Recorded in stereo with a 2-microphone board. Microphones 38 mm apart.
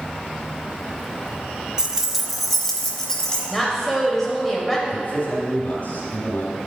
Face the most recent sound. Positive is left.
turn(degrees=55)  # may be behind; listen again after turning